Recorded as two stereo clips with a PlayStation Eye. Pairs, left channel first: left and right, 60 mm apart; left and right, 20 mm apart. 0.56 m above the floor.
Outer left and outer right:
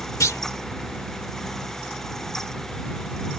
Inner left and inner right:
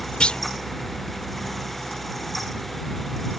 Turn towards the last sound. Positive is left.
turn(degrees=60)  # may be behind; listen again after turning